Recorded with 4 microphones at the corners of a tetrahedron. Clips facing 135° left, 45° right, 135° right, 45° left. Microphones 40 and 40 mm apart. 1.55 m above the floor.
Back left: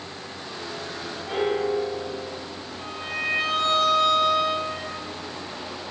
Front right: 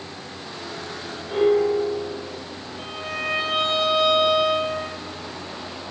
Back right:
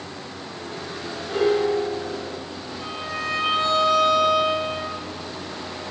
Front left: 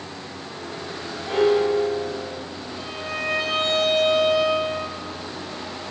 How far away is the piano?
About 3.5 m.